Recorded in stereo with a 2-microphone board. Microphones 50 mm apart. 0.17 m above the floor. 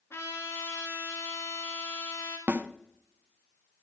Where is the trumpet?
50° left (ahead or behind), 2.5 m.